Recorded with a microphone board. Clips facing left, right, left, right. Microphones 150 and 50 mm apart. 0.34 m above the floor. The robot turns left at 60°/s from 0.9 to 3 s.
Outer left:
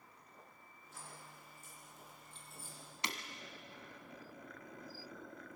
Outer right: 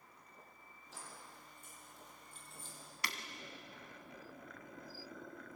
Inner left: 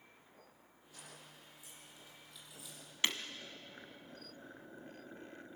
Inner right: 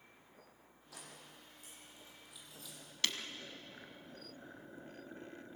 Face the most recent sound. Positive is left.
turn(degrees=20)  # may be behind; listen again after turning